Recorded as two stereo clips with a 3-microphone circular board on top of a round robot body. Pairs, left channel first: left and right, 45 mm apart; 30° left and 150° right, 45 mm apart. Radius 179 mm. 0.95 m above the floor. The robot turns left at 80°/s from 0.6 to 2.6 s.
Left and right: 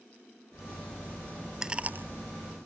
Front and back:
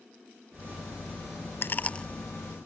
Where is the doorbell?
I don't hear a doorbell.